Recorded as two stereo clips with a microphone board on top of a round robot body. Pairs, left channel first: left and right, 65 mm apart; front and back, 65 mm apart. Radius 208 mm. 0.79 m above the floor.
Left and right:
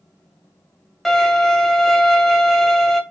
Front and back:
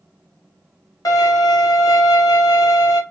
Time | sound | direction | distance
1.1 | a violin | straight ahead | 1.2 m